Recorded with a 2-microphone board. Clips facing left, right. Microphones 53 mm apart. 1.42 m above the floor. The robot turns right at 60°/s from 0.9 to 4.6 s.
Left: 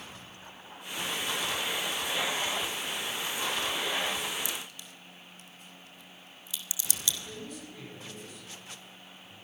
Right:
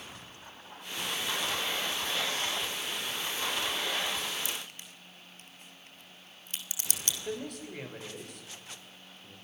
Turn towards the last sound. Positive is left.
turn(degrees=-70)  # may be behind; listen again after turning